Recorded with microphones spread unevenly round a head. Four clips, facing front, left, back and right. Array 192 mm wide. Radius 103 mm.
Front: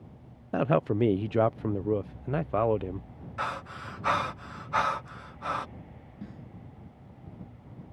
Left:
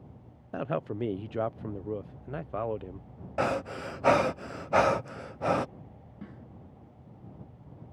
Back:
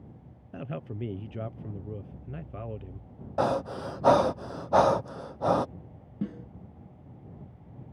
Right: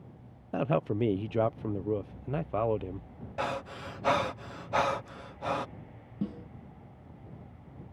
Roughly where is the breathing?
Behind left.